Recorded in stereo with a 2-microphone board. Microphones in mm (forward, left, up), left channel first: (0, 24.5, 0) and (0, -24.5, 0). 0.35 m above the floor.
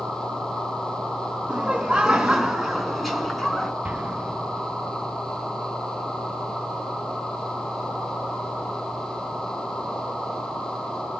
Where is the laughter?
20° right (ahead or behind), 4.5 m; by 3.7 s 5° left (ahead or behind), 4.5 m.